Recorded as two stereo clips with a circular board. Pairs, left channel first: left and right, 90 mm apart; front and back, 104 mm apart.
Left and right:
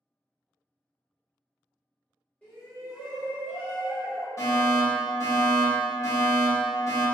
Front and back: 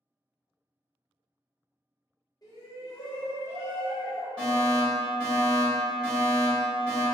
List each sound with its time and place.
2.4 s a shout: 20° left, 1.2 m; by 4.3 s 55° right, 1.4 m
4.4 s a fire alarm: 70° left, 1.7 m